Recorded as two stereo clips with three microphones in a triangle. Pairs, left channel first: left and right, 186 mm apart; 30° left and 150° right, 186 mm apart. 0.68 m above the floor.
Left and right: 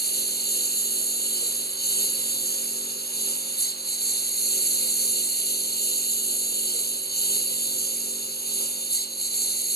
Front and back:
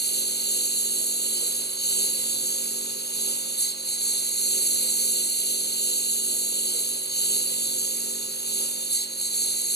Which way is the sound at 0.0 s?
60° left.